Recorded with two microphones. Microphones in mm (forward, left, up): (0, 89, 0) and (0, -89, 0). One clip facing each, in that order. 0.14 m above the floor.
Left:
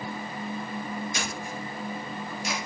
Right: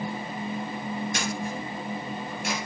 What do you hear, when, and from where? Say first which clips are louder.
1.1 s a camera shutter: right 4 dB; 60° right (ahead or behind), 2.5 m